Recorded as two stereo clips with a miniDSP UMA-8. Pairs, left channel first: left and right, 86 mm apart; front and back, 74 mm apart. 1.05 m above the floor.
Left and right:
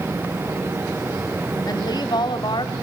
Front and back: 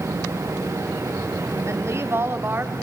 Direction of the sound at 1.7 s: 130° left.